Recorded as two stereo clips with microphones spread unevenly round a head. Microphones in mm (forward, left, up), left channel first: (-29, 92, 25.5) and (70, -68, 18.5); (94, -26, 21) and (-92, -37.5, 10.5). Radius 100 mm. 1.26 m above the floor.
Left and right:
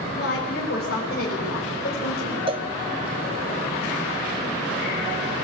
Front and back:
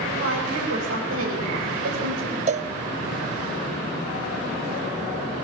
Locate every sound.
0.2 s a woman speaking: 165° left, 4.5 m; by 2.4 s 170° left, 5.5 m
2.5 s a cowbell: 125° right, 0.7 m